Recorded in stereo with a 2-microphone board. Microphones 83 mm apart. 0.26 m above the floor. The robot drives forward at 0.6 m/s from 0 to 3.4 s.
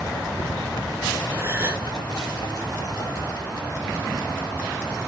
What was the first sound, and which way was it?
A gasp, 30° right (ahead or behind).